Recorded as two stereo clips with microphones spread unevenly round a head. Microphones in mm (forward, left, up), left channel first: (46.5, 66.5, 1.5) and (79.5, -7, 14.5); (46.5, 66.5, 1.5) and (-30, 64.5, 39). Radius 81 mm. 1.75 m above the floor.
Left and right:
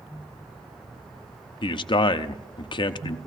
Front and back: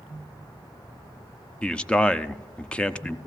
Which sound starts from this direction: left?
A man speaking, at 1.6 s.